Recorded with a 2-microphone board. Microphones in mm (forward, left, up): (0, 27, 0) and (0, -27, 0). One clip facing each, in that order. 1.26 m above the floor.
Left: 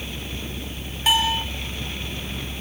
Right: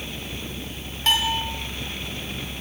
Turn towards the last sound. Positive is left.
turn(degrees=5)  # may be behind; listen again after turning